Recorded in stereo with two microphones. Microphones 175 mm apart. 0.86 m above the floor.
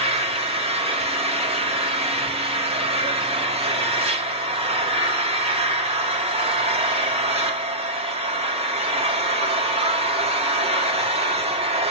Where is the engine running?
35° right (ahead or behind), 1.9 m.